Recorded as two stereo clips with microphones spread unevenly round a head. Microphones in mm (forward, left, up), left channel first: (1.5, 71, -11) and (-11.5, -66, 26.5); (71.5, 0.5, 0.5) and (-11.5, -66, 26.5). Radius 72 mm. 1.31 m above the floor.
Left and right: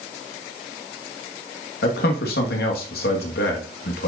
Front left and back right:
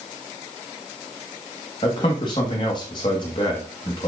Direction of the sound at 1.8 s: 95° left.